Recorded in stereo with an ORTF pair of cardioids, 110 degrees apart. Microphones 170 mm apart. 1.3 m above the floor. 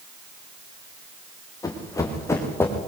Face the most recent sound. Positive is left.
turn(degrees=15)